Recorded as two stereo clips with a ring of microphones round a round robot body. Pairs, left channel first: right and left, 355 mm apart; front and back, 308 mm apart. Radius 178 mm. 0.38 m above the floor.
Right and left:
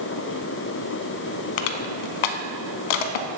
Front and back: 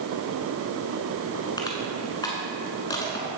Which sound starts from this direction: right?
Crushing, at 1.6 s.